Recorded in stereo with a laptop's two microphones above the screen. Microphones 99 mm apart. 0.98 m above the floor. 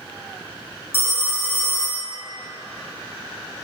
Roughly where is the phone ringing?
Left.